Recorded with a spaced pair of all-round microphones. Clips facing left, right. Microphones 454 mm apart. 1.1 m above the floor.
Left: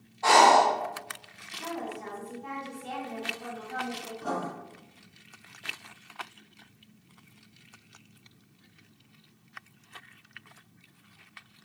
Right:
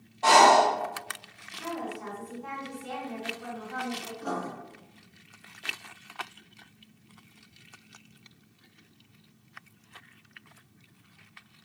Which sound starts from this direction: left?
Writing, at 4.2 s.